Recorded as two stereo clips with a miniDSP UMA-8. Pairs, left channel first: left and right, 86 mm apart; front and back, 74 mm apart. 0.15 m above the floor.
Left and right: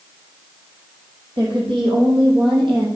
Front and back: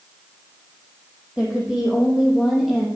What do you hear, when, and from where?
1.4 s a woman speaking: 100° right, 5.5 m; by 2.9 s 90° right, 4.5 m